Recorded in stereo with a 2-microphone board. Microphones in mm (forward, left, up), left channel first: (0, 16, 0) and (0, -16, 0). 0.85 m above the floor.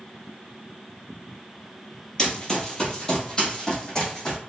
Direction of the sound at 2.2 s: 20° left (ahead or behind).